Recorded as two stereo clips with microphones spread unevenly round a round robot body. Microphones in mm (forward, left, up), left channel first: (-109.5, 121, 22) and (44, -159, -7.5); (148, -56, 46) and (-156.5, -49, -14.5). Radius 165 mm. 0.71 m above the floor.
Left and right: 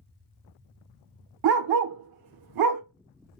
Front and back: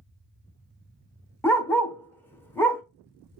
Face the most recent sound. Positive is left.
turn(degrees=-80)